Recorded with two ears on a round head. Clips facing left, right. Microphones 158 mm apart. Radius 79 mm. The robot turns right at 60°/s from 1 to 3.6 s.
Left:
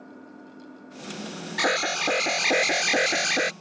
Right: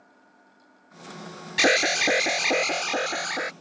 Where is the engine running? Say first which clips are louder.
Left 14 dB; 60° left; by 3.6 s 145° right.